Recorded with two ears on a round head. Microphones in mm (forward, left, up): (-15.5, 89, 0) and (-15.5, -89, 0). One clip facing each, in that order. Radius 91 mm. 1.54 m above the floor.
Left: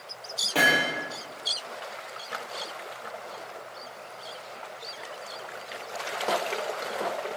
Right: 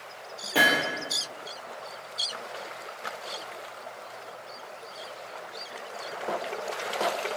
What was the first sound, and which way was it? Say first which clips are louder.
Hammering: even; 5° right (ahead or behind).